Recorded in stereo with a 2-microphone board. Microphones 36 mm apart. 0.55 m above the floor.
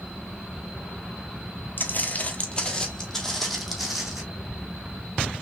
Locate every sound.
1.8 s footsteps: 55° left (ahead or behind), 1.0 m; by 4.2 s 5° right (ahead or behind), 2 m